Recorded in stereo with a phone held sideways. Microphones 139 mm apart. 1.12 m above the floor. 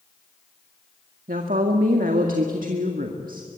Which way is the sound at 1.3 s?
85° right.